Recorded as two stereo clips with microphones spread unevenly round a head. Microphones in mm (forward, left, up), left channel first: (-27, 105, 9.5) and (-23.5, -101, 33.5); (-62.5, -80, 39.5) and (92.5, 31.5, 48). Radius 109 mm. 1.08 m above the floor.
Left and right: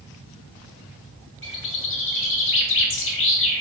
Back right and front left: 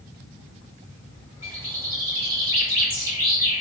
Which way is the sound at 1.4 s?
105° left.